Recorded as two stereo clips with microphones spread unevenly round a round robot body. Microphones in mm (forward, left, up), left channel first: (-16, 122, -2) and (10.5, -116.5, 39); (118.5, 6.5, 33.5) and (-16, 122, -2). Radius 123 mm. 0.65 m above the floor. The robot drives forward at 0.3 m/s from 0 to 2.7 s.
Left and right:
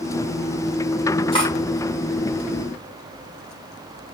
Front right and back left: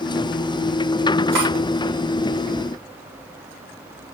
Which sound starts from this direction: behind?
Cutlery clinking, at 1.3 s.